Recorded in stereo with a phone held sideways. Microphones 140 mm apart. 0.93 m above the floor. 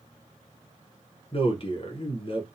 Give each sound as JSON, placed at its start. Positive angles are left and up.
{"t": 1.3, "sound": "a man speaking", "side_deg": 40, "distance_m": 0.8}